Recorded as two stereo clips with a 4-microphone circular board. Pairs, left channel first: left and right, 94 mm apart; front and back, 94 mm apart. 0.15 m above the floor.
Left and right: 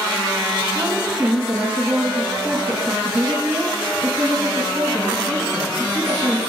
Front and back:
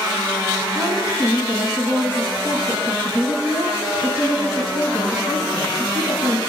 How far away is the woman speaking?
About 1.4 m.